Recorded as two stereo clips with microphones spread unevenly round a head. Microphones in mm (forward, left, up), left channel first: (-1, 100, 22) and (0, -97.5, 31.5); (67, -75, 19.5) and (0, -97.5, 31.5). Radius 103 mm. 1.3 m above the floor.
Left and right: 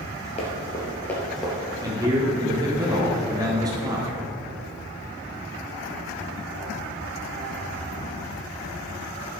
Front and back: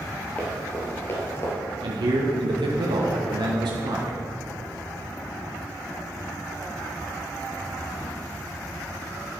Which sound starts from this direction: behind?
A man speaking, at 1.8 s.